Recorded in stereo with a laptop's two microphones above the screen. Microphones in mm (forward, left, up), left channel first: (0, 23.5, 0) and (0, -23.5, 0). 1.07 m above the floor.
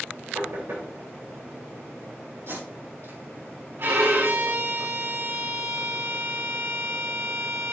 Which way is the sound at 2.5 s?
65° right (ahead or behind).